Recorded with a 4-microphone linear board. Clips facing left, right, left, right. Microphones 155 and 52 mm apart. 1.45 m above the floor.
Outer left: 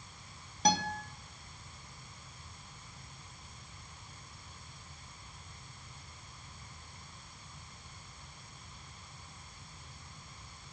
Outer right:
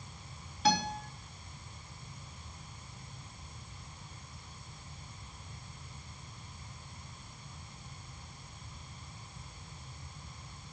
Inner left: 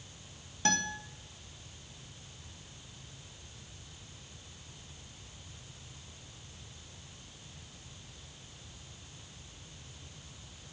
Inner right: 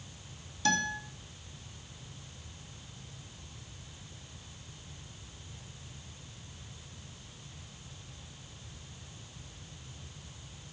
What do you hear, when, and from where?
0.7 s a guitar: 35° left (ahead or behind), 2 m